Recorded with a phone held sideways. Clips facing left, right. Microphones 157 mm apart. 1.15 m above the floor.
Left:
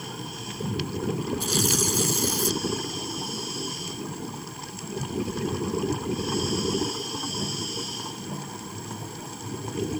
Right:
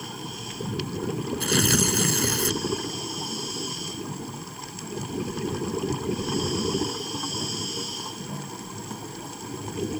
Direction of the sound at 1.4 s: 70° right (ahead or behind).